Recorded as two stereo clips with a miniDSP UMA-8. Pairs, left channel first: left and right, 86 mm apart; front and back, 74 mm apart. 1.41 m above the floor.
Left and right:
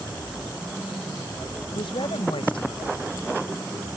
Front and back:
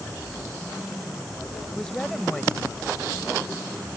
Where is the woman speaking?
85° left.